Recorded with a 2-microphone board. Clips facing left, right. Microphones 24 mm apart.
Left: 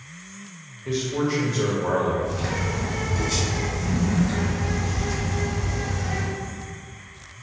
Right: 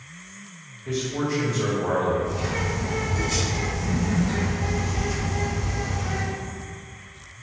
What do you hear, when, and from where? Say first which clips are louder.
0.8 s a man speaking: left 2 dB; 30° left (ahead or behind), 0.8 m
2.2 s a bird: even; 5° right (ahead or behind), 2.0 m